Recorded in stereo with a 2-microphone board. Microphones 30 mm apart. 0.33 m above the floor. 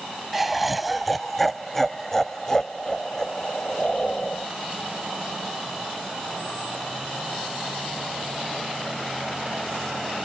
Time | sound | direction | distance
0.3 | laughter | 5° right (ahead or behind) | ?